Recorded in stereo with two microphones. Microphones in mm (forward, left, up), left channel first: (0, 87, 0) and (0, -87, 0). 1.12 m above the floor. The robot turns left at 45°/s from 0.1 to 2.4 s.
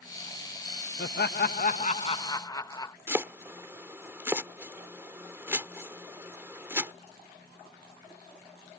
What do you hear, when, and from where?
1.0 s laughter: 85° left; by 3.0 s 20° left
3.1 s chopping: 15° right (ahead or behind)